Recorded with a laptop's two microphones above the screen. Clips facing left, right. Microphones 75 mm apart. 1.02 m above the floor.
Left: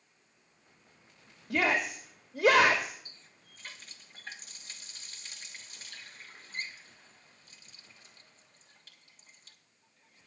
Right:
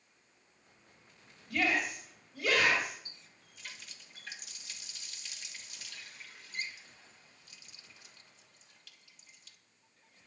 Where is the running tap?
35° left (ahead or behind), 1.2 m.